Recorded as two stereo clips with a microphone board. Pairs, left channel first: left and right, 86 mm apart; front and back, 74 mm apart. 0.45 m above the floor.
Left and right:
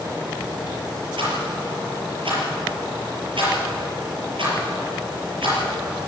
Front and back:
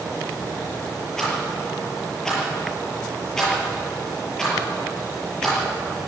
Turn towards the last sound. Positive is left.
turn(degrees=-80)